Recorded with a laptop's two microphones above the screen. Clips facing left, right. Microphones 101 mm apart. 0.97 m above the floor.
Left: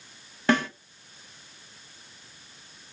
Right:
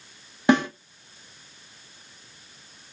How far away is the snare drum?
About 0.6 m.